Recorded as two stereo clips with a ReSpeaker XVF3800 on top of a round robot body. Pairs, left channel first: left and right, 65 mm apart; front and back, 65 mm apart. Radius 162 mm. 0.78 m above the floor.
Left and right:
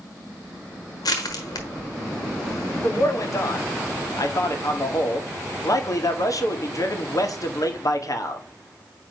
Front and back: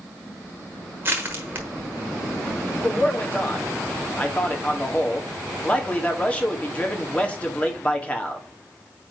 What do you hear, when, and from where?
1.0 s crushing: 115° left, 1.1 m
2.8 s a man speaking: 70° left, 1.6 m